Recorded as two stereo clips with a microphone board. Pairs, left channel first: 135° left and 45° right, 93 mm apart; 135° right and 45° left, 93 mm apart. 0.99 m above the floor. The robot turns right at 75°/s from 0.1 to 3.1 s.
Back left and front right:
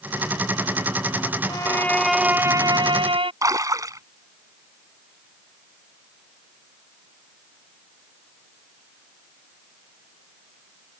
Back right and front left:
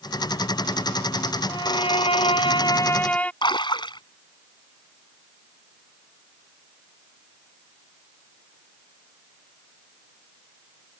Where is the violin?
Straight behind; by 3.3 s 60° right.